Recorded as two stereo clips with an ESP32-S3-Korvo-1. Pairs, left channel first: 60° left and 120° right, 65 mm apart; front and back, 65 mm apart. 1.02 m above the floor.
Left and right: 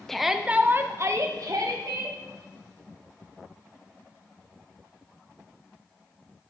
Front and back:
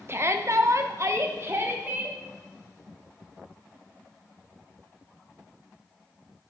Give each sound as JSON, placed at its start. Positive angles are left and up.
{"t": 0.1, "sound": "a shout", "azimuth_deg": 145, "distance_m": 0.6}